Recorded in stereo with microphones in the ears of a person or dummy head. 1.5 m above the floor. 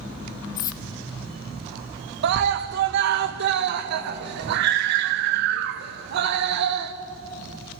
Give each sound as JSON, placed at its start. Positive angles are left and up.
{"t": 0.6, "sound": "cutlery clinking", "side_deg": 20, "distance_m": 0.7}
{"t": 2.2, "sound": "a scream", "side_deg": -60, "distance_m": 1.3}